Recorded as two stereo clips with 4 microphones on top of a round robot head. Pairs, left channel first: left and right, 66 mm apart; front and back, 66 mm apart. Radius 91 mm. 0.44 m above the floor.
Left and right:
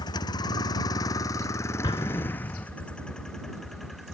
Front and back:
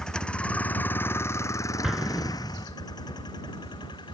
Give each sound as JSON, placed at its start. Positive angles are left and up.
{"t": 0.0, "sound": "a vehicle", "azimuth_deg": 80}
{"t": 1.8, "sound": "an explosion", "azimuth_deg": 95}